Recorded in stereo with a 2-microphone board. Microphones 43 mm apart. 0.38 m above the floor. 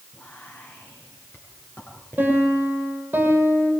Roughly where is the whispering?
Left.